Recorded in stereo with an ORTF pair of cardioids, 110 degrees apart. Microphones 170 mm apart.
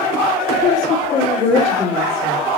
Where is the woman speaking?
40° left, 1.6 m.